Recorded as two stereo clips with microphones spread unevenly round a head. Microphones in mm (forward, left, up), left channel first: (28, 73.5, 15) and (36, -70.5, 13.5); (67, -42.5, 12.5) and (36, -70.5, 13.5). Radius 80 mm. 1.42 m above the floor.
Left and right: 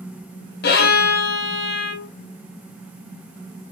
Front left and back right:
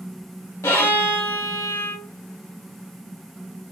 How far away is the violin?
About 1.4 m.